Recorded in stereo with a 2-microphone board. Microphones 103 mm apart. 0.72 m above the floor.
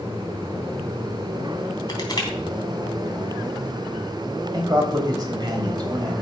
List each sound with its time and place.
1.9 s crushing: 45° left (ahead or behind), 3 m
4.5 s a man speaking: 45° right (ahead or behind), 3.5 m